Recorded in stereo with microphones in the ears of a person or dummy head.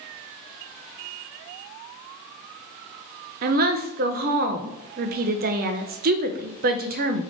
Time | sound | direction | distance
3.4 | a woman speaking | 45° right (ahead or behind) | 0.6 m